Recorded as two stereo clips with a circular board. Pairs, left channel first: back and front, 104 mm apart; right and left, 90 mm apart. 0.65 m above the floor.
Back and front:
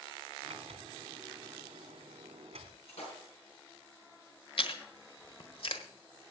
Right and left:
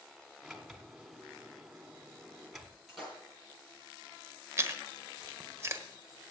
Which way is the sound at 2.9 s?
Straight behind.